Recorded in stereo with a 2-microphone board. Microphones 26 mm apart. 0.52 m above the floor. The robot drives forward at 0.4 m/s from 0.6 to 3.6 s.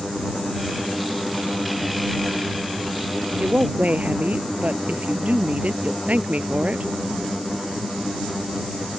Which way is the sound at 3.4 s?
65° right (ahead or behind).